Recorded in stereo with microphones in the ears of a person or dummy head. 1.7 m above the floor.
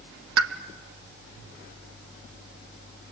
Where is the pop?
80° right, 1.7 m.